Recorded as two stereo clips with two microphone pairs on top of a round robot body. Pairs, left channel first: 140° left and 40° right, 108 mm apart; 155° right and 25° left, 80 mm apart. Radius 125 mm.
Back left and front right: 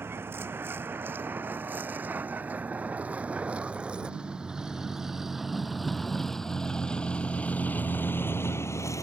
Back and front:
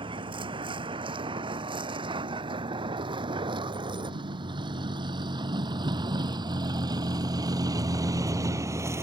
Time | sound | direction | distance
0.0 | a vehicle | 30° left | ?